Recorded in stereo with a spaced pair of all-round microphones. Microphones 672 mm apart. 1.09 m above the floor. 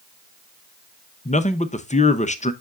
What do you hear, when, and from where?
1.2 s a man speaking: 10° left (ahead or behind), 0.6 m